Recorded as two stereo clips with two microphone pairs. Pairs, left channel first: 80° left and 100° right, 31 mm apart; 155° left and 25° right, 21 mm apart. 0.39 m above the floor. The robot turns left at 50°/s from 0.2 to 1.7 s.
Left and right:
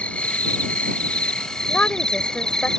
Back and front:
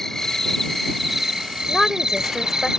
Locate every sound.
0.0 s an insect: 95° left; by 2.8 s 20° left
1.7 s a woman speaking: 85° left; by 2.7 s 80° left